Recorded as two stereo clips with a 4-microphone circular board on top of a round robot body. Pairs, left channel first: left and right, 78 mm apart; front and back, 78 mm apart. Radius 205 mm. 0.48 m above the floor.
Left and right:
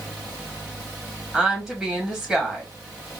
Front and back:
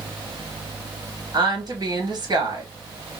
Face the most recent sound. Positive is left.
turn(degrees=-160)